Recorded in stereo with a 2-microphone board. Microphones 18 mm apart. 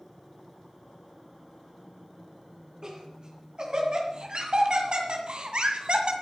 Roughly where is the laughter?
Right.